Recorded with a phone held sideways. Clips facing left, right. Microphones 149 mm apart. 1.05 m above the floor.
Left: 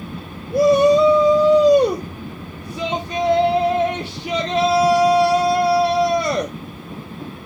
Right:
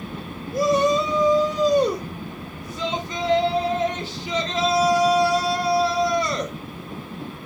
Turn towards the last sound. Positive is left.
turn(degrees=65)  # may be behind; listen again after turning